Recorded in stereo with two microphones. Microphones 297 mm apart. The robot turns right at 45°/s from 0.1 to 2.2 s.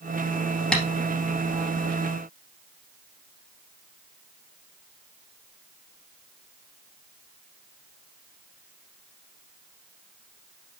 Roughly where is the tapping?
Centre.